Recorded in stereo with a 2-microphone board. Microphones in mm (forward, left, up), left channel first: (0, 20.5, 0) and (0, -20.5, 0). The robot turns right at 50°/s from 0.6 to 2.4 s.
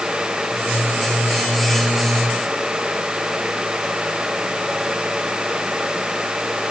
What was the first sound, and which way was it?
Only background noise.